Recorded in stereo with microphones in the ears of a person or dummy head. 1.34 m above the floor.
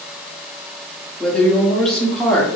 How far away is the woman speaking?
About 1.0 m.